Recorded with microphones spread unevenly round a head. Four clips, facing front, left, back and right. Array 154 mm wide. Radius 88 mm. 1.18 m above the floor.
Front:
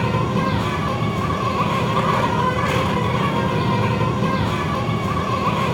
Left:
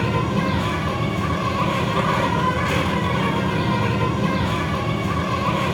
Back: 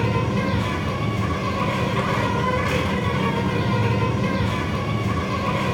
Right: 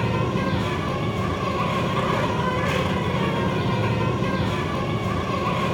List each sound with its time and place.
0.0 s an insect: 15° left, 8.5 m